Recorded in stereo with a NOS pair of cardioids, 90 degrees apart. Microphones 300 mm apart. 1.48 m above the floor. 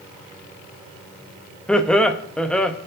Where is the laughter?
5° left, 0.6 m.